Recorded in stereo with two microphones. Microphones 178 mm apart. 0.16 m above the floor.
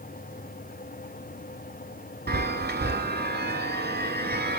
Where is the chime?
65° right (ahead or behind), 0.6 m.